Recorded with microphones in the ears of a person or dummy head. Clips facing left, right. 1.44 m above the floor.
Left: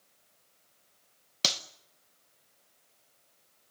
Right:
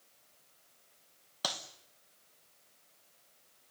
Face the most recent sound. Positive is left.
turn(degrees=40)  # may be behind; listen again after turning